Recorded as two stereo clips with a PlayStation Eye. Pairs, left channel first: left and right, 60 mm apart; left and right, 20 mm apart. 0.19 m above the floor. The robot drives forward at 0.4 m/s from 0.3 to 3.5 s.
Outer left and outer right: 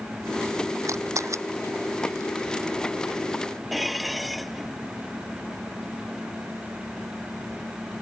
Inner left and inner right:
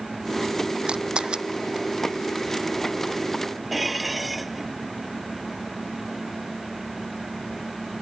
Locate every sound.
0.9 s a camera shutter: 55° right (ahead or behind)
3.7 s dishes clattering: centre (ahead or behind)